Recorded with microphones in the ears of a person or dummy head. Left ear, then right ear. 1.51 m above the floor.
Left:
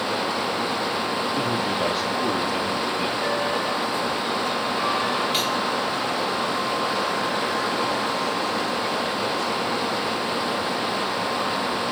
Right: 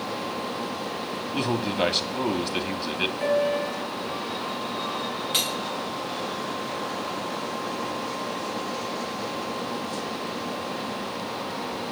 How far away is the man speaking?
About 3 m.